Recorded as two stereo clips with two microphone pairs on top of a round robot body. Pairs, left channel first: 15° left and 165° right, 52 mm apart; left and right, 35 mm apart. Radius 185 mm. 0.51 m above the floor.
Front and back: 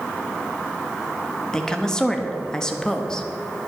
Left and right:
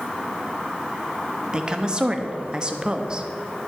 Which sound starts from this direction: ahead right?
A woman speaking, at 1.5 s.